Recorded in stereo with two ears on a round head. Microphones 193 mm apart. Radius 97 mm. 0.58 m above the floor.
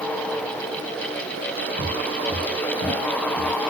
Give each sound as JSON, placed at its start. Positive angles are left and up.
{"t": 1.8, "sound": "footsteps", "side_deg": 25, "distance_m": 3.5}